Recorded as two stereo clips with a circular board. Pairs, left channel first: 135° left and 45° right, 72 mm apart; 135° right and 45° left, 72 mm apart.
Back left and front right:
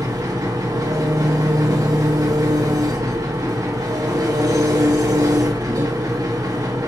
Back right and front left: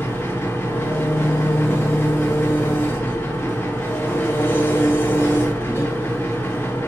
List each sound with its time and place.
0.0 s an engine running: 80° right, 2 m